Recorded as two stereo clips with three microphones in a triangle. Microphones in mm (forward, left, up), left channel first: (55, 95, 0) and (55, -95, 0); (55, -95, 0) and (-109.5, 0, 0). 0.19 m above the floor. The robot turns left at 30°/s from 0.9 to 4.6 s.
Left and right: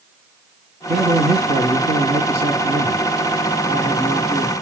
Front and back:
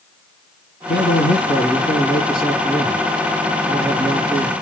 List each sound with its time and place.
0.9 s a man speaking: 55° right, 2.5 m; by 4.5 s 160° right, 2.5 m